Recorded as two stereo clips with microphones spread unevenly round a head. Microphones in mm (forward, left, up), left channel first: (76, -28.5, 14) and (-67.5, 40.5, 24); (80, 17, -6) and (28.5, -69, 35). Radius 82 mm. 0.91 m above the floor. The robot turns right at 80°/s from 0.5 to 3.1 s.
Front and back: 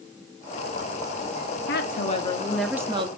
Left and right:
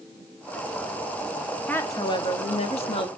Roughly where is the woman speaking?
Ahead.